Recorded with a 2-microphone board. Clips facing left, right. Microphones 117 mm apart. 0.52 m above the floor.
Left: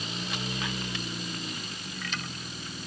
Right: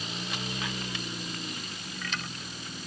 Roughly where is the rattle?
I don't hear a rattle.